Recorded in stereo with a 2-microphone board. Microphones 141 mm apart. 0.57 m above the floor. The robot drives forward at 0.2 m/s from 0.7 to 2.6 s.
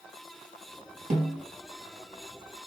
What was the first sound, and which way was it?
A snare drum, 75° right (ahead or behind).